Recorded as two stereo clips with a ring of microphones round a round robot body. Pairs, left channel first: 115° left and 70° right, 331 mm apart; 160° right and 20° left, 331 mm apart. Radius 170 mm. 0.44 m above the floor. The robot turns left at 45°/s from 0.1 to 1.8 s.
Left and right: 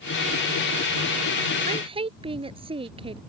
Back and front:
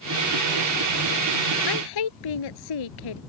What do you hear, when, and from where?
1.7 s a woman speaking: 135° right; by 3.2 s 140° right